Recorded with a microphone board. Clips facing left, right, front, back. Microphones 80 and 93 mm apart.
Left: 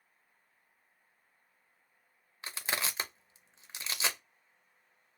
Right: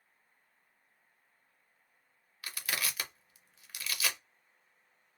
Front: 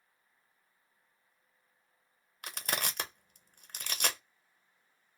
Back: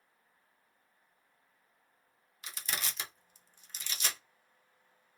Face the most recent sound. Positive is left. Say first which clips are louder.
# left 2 dB, front 4 dB
turn(degrees=30)